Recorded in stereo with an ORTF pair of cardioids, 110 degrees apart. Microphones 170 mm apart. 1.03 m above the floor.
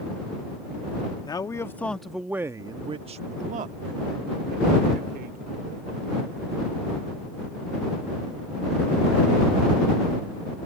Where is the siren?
No siren in this recording.